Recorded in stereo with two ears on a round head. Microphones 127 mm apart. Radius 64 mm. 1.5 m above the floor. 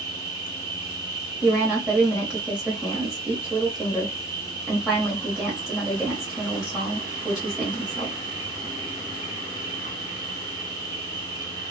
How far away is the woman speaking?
About 0.8 m.